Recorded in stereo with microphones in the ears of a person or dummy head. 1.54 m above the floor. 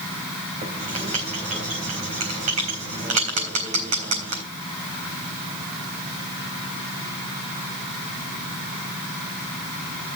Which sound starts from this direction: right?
Writing, at 0.6 s.